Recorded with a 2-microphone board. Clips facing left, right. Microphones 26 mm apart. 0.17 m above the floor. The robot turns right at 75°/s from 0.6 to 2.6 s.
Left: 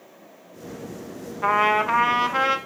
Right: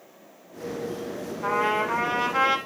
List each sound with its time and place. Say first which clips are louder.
1.4 s a trumpet: left 5 dB; 85° left, 0.6 m; by 2.6 s 170° left, 0.6 m